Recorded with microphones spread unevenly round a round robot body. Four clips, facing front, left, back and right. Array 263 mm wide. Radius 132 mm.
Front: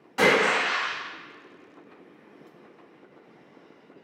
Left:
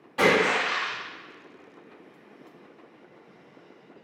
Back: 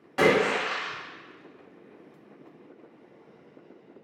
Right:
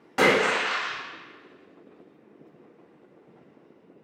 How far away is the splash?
About 1.5 m.